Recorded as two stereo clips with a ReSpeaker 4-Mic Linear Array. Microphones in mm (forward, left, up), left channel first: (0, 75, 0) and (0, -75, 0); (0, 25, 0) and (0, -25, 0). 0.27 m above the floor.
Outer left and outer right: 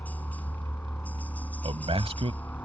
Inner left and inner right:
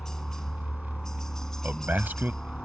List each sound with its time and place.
0.0 s a helicopter: 10° left (ahead or behind)
1.6 s a man speaking: 40° right (ahead or behind)